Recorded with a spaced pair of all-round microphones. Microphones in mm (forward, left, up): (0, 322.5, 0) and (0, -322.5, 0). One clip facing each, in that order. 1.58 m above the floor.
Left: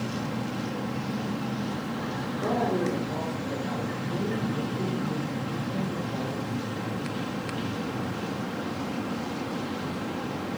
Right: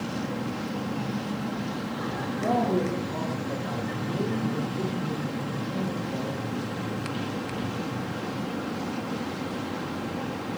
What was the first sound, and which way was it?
A man speaking, 65° right (ahead or behind).